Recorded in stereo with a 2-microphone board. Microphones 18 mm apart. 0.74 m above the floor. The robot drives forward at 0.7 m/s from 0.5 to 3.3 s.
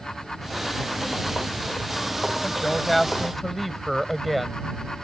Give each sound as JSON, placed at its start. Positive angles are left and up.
{"t": 2.4, "sound": "a woman speaking", "side_deg": 5}